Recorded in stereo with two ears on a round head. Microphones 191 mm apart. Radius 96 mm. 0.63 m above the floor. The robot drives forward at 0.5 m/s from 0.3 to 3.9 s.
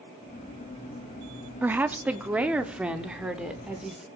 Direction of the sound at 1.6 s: 10° right (ahead or behind).